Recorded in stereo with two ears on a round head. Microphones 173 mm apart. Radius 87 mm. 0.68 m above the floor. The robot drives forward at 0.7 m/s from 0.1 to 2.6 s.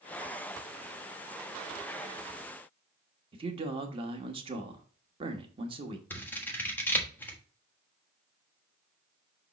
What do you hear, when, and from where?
3.3 s a man speaking: 30° right (ahead or behind), 1.1 m
6.1 s scissors: 10° left (ahead or behind), 1.4 m